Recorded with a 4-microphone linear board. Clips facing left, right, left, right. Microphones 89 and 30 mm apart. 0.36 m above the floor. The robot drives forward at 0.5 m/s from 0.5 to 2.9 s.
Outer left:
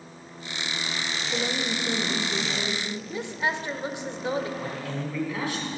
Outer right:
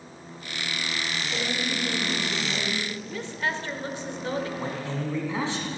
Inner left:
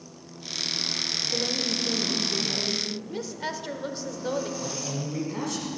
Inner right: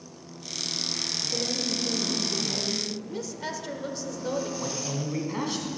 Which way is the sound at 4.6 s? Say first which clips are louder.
Outer right 1 dB, inner right 1 dB; 25° right (ahead or behind).